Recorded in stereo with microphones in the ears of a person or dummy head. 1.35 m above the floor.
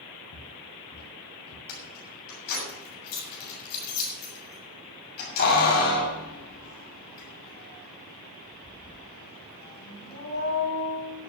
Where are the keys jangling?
50° left (ahead or behind), 7 m.